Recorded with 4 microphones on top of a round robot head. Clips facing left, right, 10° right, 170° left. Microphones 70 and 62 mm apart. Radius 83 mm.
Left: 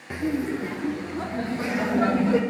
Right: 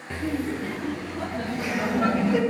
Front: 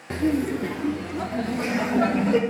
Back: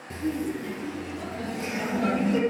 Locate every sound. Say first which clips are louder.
0.1 s laughter: left 2 dB, front 6 dB; 15° left, 0.5 m; by 2.4 s 30° left, 1.7 m